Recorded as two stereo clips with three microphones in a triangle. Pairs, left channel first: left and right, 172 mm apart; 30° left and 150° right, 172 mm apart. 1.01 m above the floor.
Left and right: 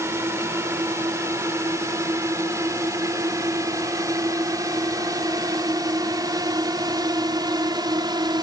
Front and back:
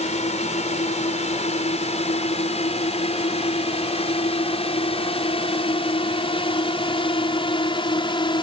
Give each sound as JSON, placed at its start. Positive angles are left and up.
{"t": 0.0, "sound": "a drone", "azimuth_deg": -15}